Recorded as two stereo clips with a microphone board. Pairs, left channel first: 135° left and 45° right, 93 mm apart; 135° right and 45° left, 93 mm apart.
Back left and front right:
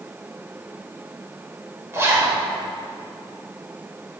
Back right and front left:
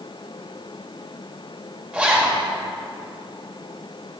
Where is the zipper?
20° right, 1.7 m.